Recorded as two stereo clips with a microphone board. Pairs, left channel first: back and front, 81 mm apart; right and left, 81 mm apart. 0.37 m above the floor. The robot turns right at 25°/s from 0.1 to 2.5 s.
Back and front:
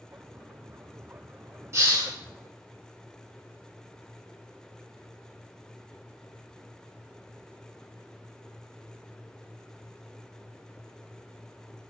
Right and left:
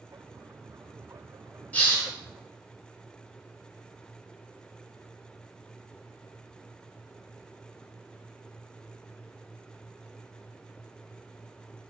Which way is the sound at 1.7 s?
25° right.